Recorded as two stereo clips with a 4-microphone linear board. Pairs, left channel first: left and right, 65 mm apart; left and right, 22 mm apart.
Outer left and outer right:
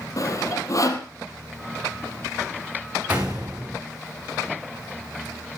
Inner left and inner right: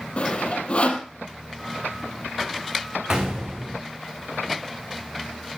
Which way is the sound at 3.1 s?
25° right (ahead or behind).